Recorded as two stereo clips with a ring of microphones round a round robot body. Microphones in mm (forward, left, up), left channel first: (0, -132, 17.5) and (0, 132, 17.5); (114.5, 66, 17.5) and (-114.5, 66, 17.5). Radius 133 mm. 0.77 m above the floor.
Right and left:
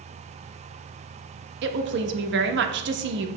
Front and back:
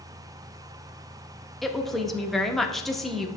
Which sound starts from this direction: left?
A woman speaking, at 1.6 s.